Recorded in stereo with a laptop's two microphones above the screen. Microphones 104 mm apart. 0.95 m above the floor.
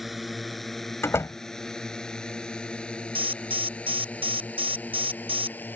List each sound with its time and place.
0.0 s a drone: centre (ahead or behind); by 5.8 s 20° left (ahead or behind)
1.0 s a door slam: 25° left (ahead or behind)
3.1 s an alarm: 70° right (ahead or behind)